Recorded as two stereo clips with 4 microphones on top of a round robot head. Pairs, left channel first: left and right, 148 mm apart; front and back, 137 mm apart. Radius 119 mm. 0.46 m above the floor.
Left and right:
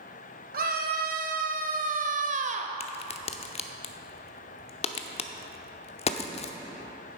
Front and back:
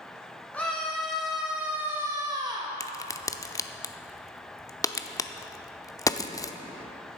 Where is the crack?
60° left, 0.7 m.